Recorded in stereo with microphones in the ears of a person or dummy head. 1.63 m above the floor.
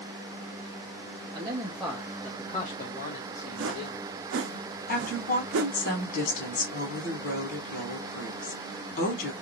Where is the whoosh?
80° right, 0.6 m.